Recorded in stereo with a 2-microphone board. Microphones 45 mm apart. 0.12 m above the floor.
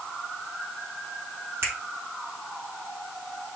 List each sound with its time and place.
1.6 s a finger snap: 60° right (ahead or behind), 2.5 m